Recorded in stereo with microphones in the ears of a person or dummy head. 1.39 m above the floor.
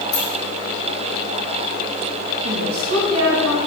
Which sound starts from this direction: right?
A woman speaking, at 2.4 s.